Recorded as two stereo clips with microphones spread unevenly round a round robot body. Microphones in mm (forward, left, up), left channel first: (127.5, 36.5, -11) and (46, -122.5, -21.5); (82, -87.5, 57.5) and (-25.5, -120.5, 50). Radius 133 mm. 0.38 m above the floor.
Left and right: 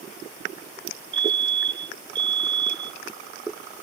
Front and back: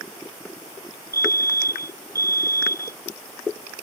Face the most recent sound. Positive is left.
turn(degrees=-100)